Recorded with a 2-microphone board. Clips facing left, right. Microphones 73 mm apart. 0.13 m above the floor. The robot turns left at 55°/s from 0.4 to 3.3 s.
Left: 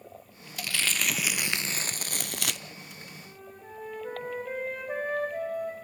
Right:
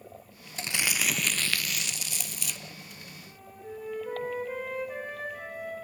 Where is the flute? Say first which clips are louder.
Right 2 dB; 50° left (ahead or behind), 6 m; by 5.7 s 45° left (ahead or behind), 6 m.